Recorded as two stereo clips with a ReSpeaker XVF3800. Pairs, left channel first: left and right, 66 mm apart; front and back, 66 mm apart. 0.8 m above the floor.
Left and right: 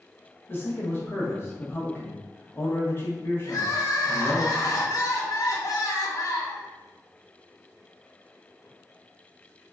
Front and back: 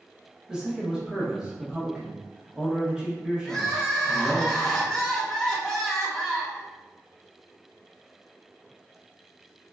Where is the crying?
80° left, 0.6 m.